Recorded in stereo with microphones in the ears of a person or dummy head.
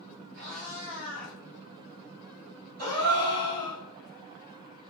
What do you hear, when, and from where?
0.3 s a cat meowing: 45° right (ahead or behind), 1.8 m; by 1.4 s 30° right (ahead or behind), 1.4 m
2.8 s a gasp: 50° right (ahead or behind), 2 m